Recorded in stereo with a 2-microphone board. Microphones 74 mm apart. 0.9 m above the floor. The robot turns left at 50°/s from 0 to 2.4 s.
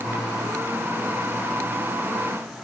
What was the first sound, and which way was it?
Only background noise.